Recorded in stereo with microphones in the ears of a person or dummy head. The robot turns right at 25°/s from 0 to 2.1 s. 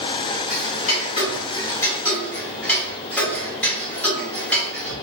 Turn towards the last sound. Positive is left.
turn(degrees=10)  # may be behind; listen again after turning